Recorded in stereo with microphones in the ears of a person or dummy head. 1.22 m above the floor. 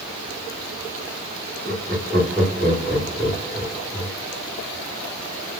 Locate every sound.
1.6 s laughter: centre (ahead or behind), 1.8 m